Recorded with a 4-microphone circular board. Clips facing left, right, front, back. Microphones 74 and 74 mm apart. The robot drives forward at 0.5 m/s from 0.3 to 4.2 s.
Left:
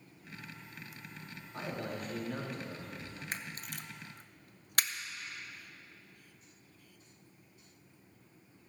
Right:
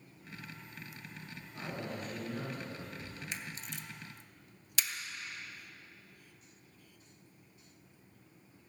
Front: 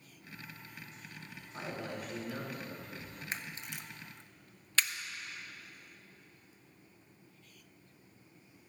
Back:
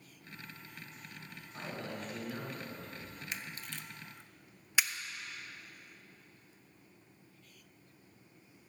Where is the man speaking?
75° left, 5 m; by 3.2 s 85° left, 4.5 m.